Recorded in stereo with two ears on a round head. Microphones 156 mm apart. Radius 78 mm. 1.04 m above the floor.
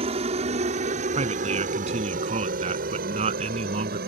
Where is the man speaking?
35° right (ahead or behind).